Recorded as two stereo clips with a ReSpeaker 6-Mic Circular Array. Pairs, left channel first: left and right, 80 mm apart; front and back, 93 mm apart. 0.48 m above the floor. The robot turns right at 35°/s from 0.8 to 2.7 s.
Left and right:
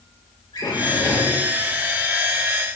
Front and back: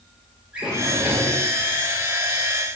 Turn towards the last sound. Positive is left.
turn(degrees=170)